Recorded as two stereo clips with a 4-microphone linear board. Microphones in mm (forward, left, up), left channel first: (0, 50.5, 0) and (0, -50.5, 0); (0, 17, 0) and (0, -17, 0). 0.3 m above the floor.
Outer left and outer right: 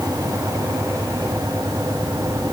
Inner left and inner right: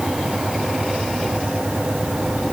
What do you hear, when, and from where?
Only background noise.